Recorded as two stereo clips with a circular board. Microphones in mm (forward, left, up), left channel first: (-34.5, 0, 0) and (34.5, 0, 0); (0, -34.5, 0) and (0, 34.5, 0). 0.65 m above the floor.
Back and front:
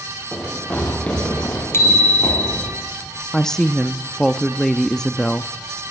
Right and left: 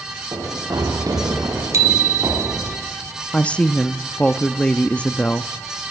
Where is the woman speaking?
115° right, 0.7 m.